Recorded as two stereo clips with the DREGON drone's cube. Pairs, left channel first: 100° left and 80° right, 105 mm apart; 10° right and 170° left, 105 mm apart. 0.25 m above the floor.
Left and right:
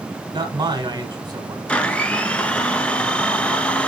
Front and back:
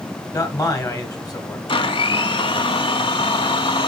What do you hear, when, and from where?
0.3 s a man speaking: 55° right, 1.3 m
1.7 s a blender: 20° left, 0.6 m